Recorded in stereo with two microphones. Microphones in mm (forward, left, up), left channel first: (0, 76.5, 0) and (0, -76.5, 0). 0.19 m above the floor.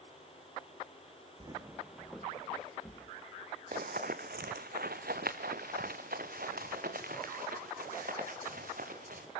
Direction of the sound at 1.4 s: 35° right (ahead or behind).